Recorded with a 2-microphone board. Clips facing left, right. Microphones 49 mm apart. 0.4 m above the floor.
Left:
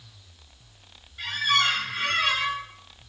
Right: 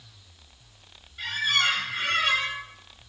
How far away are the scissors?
No scissors in this recording.